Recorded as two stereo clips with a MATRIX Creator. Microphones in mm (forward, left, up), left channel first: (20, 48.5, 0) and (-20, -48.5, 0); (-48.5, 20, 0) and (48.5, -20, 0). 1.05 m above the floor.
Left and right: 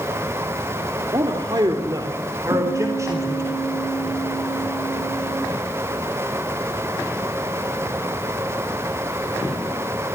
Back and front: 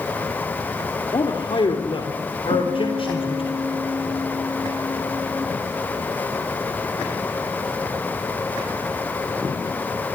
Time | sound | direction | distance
1.1 | a man speaking | 160° right | 3.5 m
2.5 | a guitar | 75° right | 3 m